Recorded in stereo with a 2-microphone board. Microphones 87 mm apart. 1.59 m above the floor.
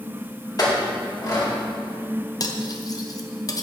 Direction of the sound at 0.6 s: 45° left (ahead or behind).